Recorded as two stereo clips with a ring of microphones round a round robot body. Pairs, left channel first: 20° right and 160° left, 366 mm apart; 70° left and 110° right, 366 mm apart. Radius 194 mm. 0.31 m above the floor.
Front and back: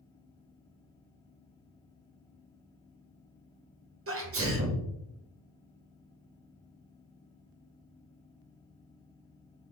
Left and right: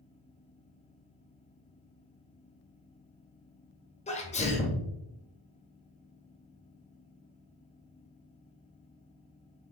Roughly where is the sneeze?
Behind left.